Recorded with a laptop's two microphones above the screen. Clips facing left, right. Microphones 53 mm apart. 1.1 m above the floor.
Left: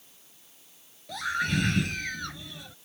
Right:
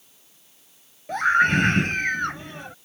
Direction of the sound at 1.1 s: 45° right (ahead or behind).